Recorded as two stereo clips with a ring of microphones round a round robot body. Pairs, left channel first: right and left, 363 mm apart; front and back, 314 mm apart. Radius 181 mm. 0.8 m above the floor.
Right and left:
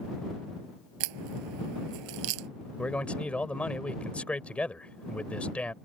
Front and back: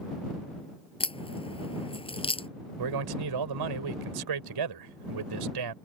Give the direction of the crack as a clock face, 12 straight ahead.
10 o'clock.